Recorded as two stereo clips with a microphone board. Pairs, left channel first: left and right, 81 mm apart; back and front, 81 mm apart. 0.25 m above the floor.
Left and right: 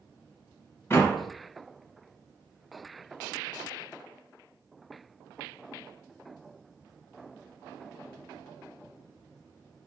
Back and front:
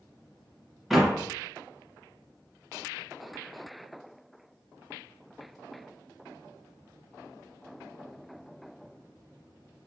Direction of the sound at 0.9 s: 90° left.